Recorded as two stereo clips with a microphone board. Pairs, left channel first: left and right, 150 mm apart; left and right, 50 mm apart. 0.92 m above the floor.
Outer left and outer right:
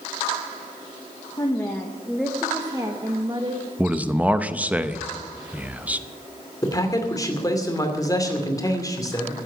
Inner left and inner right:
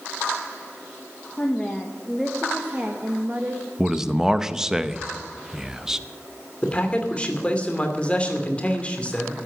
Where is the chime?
No chime in this recording.